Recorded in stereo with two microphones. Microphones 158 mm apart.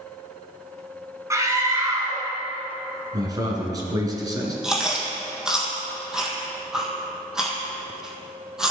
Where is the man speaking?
25° right (ahead or behind), 2 m.